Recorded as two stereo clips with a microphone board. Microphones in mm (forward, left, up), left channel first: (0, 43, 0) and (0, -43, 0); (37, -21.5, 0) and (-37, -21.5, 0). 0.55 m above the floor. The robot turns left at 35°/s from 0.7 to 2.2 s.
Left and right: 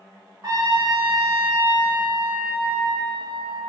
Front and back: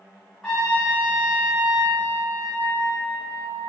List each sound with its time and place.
0.4 s a trumpet: 85° right, 1.2 m; by 3.6 s 140° right, 1.2 m